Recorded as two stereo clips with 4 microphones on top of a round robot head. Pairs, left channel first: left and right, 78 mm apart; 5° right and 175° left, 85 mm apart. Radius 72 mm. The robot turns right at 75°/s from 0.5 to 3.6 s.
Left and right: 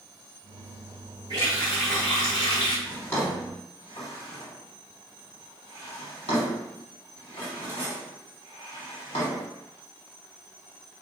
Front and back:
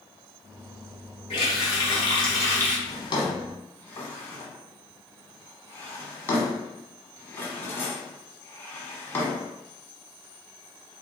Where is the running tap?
40° right, 1.4 m; by 2.8 s 70° left, 1.4 m.